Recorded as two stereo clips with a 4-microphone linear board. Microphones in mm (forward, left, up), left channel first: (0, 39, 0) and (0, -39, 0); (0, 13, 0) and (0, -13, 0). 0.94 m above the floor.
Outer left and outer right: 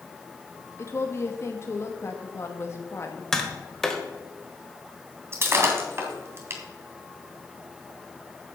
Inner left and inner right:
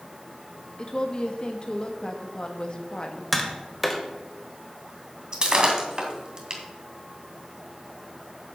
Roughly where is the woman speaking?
Left.